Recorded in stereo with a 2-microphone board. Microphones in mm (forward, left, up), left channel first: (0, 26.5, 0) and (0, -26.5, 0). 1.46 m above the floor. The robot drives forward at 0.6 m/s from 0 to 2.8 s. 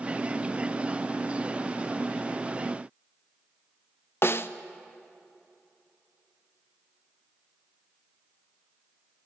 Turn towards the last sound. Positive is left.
turn(degrees=50)  # may be behind; listen again after turning